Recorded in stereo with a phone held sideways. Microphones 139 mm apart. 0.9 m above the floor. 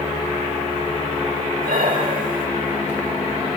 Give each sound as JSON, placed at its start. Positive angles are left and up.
{"t": 1.6, "sound": "breathing", "side_deg": -85, "distance_m": 3.0}